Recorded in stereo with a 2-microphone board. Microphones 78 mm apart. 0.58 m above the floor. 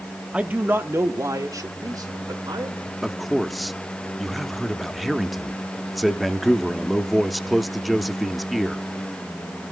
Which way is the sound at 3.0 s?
Centre (ahead or behind).